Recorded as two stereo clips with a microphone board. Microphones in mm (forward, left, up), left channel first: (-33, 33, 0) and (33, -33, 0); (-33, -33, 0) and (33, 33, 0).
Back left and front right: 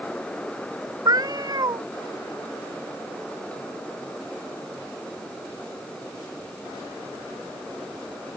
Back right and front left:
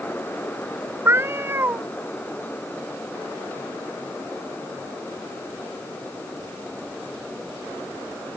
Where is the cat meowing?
15° right.